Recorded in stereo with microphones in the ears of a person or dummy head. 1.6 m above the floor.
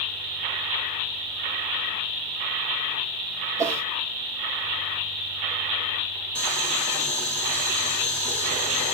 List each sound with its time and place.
3.6 s a whoosh: 15° right (ahead or behind), 0.9 m
6.3 s boiling: 10° left (ahead or behind), 2 m